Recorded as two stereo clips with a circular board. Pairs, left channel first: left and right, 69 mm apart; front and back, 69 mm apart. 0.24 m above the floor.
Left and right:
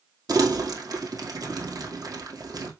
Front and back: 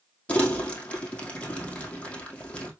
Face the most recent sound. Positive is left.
turn(degrees=-70)